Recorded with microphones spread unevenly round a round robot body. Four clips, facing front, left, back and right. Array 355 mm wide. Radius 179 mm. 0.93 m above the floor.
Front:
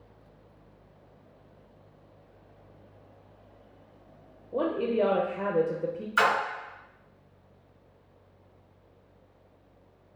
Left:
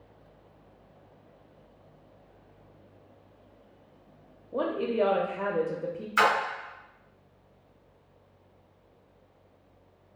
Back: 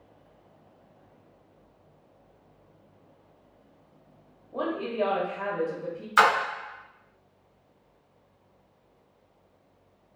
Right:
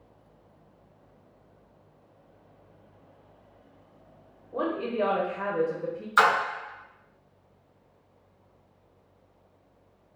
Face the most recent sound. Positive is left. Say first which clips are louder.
# right 2 dB, back 4 dB
turn(degrees=-160)